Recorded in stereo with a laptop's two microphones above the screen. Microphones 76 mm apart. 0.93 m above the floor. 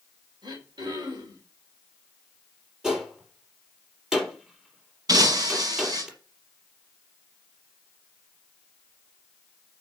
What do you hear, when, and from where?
0.4 s throat clearing: 70° right (ahead or behind), 4 m
2.8 s a gunshot: 5° right (ahead or behind), 4.5 m
5.1 s breaking glass: 55° right (ahead or behind), 4.5 m